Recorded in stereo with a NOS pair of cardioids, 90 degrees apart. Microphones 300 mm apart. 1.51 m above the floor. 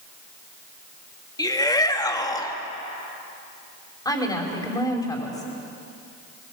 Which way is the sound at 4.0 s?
10° left.